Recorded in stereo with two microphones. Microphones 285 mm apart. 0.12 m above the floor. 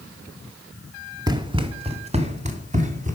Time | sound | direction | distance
1.3 | running footsteps | 15° right (ahead or behind) | 0.8 m